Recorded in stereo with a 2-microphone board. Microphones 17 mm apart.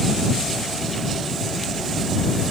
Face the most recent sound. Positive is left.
No sound to turn to.